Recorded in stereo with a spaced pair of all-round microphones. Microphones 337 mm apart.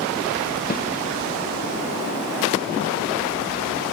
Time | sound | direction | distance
0.7 | a snare drum | 25° left (ahead or behind) | 0.6 m